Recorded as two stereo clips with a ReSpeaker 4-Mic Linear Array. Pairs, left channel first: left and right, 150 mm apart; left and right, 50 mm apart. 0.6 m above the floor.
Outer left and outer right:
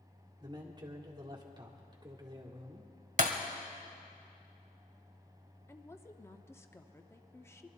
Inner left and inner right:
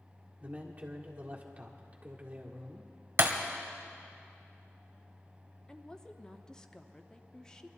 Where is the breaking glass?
55° right (ahead or behind), 1.5 m.